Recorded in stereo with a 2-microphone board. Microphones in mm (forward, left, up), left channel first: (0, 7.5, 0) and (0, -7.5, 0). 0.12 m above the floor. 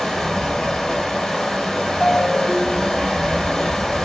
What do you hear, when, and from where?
0.0 s running water: 45° left (ahead or behind), 3.5 m
2.0 s a ringtone: 60° left (ahead or behind), 3.5 m